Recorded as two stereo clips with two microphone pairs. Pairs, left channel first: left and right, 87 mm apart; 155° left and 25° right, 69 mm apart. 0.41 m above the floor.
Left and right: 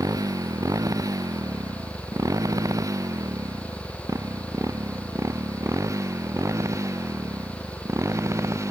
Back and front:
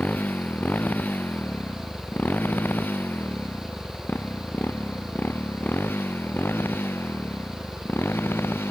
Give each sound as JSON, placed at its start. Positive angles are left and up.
{"t": 0.0, "sound": "a motorcycle", "azimuth_deg": -140}